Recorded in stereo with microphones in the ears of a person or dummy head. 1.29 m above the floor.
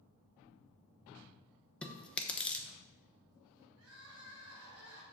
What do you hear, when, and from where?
1.8 s chewing: 10° left (ahead or behind), 0.9 m
3.8 s crying: 65° right (ahead or behind), 2 m